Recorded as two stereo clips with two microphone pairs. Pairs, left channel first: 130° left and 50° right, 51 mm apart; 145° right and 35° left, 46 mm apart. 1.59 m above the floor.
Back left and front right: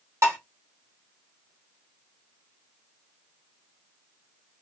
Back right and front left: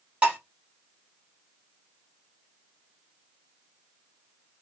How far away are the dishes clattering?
About 1.7 m.